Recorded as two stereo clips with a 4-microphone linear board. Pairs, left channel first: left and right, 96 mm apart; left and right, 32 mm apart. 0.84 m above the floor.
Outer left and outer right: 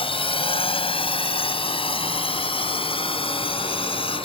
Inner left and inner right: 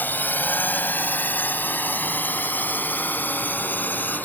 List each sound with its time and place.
0.0 s a drone: 75° left (ahead or behind)